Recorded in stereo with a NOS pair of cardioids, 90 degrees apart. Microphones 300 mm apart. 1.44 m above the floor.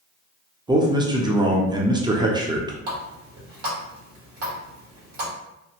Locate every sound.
0.7 s a man speaking: 15° right, 0.6 m
2.9 s a running tap: 70° right, 1.7 m